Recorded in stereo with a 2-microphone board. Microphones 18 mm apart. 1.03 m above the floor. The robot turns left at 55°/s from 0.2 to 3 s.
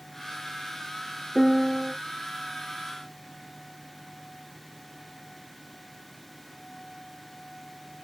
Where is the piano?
135° right, 0.6 m; by 1.9 s 165° right, 0.6 m.